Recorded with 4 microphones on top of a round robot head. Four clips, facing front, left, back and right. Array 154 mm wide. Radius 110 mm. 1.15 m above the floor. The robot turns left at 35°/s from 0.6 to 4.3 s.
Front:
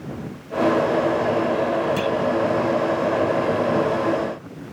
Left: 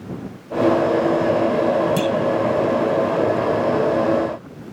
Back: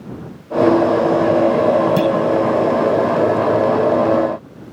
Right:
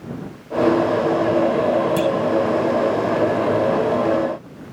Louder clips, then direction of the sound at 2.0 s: Right 1 dB, back 7 dB; 175° left.